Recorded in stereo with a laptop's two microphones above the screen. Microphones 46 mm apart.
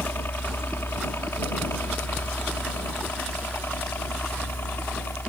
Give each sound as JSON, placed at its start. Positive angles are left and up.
{"t": 0.0, "sound": "a helicopter", "side_deg": 60}